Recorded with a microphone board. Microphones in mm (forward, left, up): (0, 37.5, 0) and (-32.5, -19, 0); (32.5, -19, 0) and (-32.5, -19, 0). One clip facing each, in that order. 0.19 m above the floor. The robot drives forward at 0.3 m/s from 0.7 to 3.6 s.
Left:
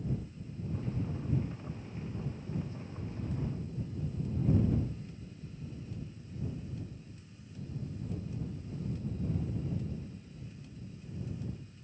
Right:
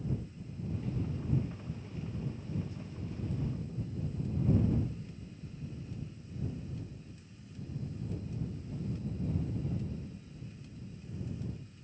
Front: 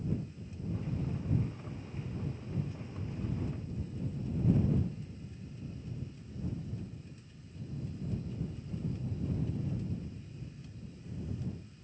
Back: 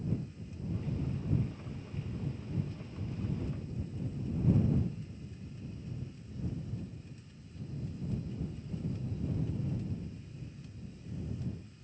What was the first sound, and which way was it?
Only background noise.